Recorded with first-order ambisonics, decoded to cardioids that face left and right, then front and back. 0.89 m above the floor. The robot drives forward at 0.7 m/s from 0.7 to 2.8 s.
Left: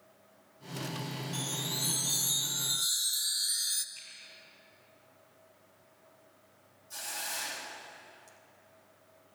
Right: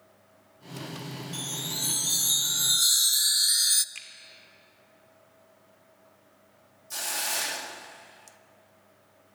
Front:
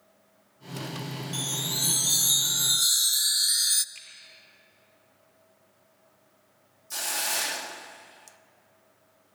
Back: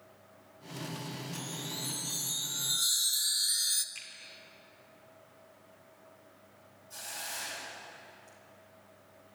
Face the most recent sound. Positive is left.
turn(degrees=-35)